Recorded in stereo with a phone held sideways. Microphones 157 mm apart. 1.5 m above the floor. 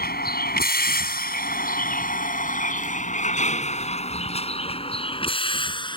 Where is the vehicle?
85° left; by 6.0 s 30° left (ahead or behind).